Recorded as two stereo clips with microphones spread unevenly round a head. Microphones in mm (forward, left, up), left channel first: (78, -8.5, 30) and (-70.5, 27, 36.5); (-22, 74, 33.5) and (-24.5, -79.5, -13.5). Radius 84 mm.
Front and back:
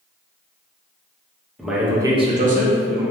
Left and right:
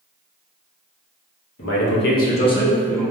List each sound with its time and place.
1.6 s a man speaking: 75° left, 0.8 m; by 3.0 s 170° right, 0.8 m